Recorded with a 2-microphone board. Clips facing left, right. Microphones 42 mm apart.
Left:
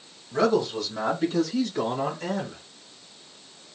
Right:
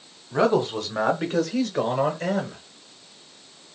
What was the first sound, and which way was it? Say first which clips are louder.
A man speaking: right 2 dB; 25° right (ahead or behind).